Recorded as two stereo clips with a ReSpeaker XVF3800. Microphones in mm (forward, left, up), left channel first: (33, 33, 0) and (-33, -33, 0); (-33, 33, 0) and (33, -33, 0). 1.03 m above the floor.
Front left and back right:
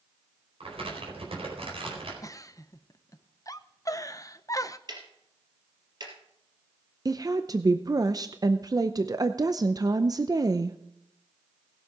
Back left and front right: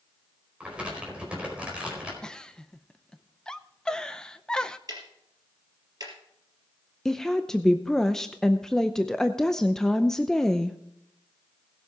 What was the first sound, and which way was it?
Crumpling, 125° right.